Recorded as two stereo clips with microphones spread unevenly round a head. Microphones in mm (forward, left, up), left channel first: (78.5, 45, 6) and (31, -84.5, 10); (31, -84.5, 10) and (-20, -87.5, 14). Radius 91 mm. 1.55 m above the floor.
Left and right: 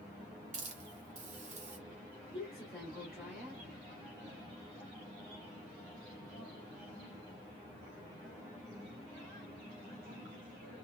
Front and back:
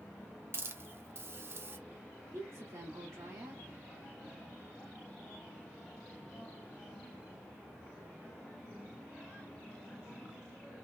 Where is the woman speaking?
165° left, 1.7 m.